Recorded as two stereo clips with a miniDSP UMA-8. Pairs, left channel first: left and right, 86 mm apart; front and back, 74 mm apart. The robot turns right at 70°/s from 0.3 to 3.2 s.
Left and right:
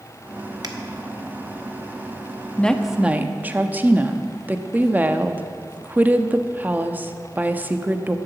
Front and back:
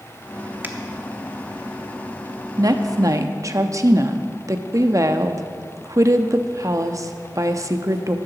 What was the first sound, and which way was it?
A finger snap, 120° right.